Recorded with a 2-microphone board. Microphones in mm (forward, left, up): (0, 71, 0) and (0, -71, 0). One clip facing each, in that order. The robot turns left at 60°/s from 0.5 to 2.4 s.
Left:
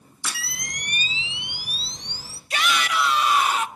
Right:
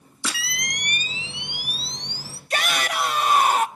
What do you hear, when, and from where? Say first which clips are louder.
0.2 s a camera shutter: right 4 dB; 100° right, 1.0 m; by 2.4 s 150° left, 1.0 m
2.5 s a shout: left 1 dB; 40° right (ahead or behind), 1.1 m